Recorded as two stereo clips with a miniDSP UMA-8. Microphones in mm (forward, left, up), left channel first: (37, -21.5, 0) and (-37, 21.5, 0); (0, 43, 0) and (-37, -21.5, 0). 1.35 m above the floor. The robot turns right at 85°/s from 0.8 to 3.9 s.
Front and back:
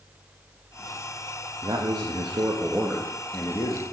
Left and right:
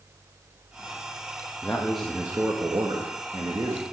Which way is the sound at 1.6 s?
120° left.